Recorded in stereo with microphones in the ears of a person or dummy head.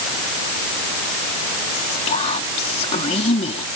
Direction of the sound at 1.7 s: 40° left (ahead or behind).